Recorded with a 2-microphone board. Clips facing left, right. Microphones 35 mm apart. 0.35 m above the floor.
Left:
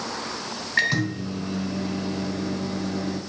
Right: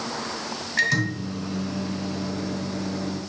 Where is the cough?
No cough in this recording.